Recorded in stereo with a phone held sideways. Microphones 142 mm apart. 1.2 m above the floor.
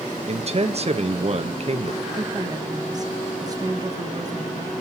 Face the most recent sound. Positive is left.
turn(degrees=-25)  # may be behind; listen again after turning